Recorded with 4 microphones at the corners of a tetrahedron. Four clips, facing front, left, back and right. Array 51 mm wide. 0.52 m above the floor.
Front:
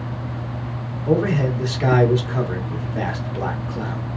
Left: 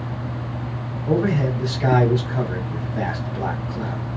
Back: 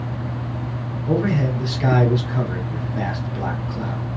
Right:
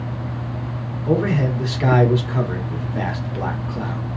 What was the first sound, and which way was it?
A man speaking, 70° right.